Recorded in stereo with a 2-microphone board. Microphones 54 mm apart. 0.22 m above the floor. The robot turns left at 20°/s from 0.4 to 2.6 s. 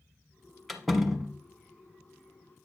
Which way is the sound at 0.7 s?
5° left (ahead or behind).